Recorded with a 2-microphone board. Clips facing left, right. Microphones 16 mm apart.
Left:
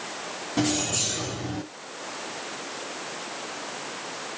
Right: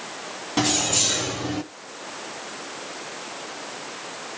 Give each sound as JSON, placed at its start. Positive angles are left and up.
{"t": 0.6, "sound": "keys jangling", "side_deg": -40, "distance_m": 1.6}